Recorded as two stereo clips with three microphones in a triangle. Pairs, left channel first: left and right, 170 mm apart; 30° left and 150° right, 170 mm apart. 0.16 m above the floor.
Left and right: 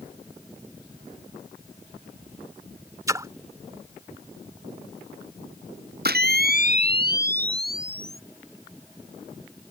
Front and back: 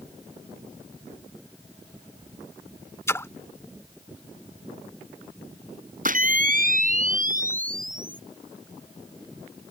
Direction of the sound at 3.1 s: 35° right.